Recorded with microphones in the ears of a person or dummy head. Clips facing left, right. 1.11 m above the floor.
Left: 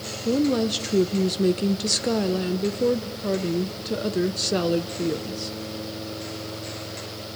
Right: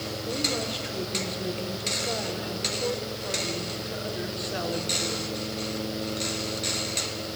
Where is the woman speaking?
45° left (ahead or behind), 0.8 m.